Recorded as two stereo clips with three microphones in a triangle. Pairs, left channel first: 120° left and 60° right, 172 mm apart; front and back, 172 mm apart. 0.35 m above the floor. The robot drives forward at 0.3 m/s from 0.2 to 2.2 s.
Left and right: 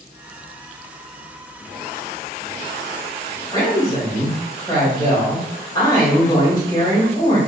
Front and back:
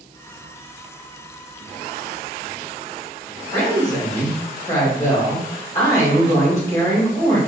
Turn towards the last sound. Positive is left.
turn(degrees=65)